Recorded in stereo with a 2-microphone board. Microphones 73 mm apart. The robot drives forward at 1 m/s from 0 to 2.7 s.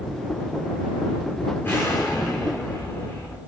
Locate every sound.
1.6 s an explosion: 30° left (ahead or behind), 5 m; by 3.4 s 25° left (ahead or behind), 6 m